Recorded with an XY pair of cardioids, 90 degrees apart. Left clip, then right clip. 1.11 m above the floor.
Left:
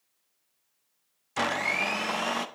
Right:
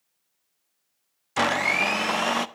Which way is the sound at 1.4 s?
40° right.